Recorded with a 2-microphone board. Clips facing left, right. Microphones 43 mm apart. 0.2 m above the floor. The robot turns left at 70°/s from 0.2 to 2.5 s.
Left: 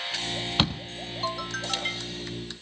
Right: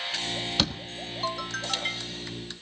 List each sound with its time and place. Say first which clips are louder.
0.6 s a door slam: left 3 dB; 25° left (ahead or behind), 1.3 m; by 0.8 s 35° left (ahead or behind), 1.3 m